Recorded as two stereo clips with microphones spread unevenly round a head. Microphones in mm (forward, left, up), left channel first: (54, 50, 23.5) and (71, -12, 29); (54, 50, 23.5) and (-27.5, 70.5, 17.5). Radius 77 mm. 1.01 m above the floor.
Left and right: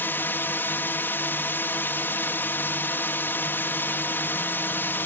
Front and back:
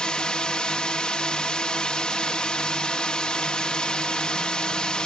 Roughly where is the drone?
Ahead left.